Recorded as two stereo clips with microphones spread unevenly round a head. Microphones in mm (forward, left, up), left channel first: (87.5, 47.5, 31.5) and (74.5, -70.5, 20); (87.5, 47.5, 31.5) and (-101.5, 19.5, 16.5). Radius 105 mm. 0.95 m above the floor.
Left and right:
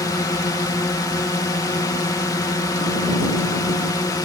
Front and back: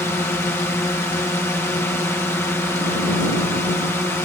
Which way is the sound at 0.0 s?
80° left.